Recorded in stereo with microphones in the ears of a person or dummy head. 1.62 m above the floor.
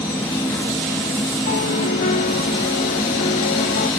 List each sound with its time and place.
0.0 s an insect: 20° left (ahead or behind)
1.5 s a piano: 45° left (ahead or behind)